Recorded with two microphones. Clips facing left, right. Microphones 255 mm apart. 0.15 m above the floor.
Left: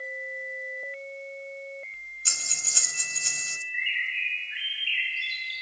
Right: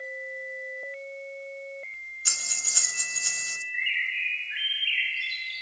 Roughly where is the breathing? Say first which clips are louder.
Left 1 dB; left.